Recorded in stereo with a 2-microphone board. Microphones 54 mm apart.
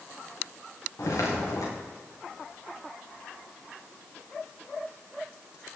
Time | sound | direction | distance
1.0 | footsteps | 80° left | 5 m